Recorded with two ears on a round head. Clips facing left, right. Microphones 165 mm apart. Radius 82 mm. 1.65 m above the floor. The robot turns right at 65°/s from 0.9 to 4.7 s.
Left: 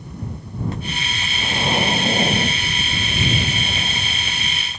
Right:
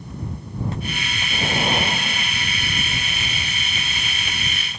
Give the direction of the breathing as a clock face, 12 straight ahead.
1 o'clock.